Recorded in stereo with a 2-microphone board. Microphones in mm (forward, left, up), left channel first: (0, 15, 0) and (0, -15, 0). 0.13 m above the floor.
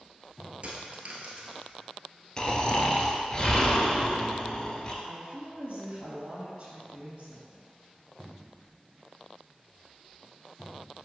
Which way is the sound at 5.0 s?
30° right (ahead or behind).